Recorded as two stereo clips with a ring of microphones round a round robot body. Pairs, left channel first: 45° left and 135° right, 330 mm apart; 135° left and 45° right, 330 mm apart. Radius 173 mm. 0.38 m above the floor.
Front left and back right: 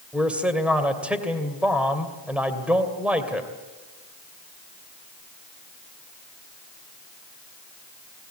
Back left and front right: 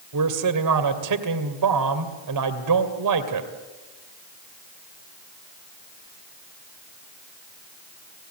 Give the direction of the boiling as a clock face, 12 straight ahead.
No boiling in this recording.